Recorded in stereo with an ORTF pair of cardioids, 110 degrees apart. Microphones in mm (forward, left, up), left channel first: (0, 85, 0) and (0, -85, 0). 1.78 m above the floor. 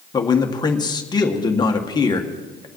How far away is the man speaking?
About 1.8 m.